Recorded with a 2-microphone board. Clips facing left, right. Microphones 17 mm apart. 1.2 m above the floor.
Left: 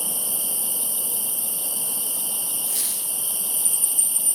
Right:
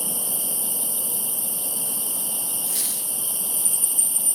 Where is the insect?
15° left (ahead or behind), 0.9 m.